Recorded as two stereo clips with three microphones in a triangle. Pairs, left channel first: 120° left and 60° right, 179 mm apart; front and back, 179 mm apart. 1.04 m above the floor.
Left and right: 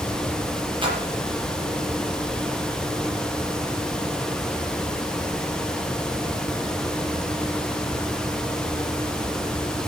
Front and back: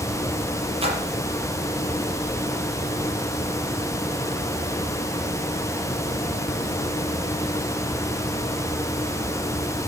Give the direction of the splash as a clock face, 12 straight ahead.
4 o'clock.